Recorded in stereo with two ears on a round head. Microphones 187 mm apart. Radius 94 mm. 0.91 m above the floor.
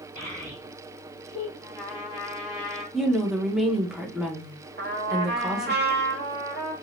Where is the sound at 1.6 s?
15° right (ahead or behind), 2 m.